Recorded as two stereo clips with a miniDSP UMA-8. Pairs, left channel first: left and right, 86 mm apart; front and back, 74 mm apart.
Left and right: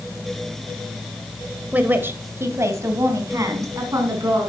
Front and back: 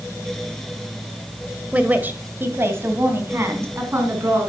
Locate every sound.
1.7 s a woman speaking: 140° right, 1.4 m; by 4.5 s 135° right, 4 m